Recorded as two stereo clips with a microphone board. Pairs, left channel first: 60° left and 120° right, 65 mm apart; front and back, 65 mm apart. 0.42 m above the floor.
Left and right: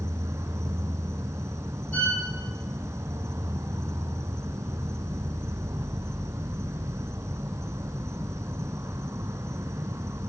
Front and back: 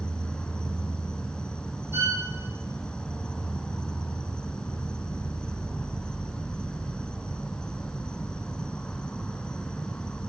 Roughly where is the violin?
Behind left.